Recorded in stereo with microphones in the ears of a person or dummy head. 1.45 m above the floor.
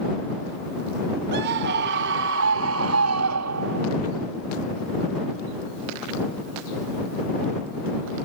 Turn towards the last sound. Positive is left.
turn(degrees=-70)  # may be behind; listen again after turning